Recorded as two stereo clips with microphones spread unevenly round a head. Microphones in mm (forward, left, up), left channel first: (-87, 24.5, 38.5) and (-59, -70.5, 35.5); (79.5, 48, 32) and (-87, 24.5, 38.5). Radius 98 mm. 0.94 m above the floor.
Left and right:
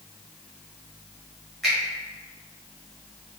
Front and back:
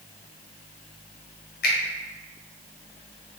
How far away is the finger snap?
About 0.8 m.